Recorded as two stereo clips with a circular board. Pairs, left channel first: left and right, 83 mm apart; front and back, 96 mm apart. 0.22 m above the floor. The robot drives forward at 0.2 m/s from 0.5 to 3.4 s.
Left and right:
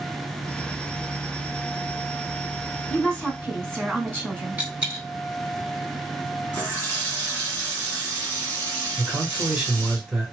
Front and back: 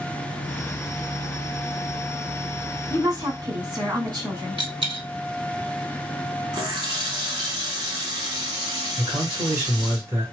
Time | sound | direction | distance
2.9 | a woman speaking | 170° left | 1.8 m
4.6 | a dropped coin | 160° right | 0.9 m
6.5 | a running tap | 150° left | 1.5 m
9.0 | a man speaking | 165° right | 1.4 m